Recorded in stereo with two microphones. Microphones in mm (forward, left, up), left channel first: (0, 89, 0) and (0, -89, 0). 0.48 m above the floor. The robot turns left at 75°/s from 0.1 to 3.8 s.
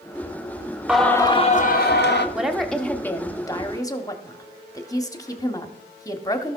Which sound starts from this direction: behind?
Singing, at 0.9 s.